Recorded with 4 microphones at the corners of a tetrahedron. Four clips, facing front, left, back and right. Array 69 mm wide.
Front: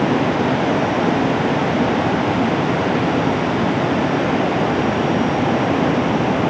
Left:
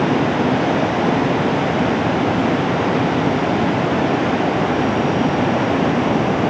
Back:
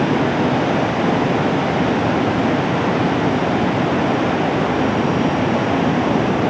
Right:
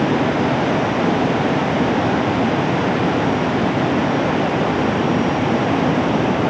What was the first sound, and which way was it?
Only background noise.